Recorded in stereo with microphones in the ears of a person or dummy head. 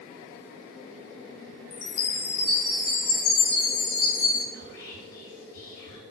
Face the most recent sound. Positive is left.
turn(degrees=90)